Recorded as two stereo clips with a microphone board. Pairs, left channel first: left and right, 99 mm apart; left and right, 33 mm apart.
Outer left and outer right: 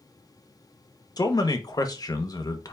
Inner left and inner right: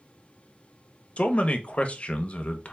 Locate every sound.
1.2 s a man speaking: 40° left (ahead or behind), 0.7 m